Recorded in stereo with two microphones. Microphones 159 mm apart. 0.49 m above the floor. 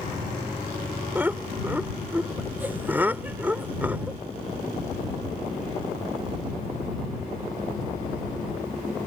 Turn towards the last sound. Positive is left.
turn(degrees=-10)  # may be behind; listen again after turning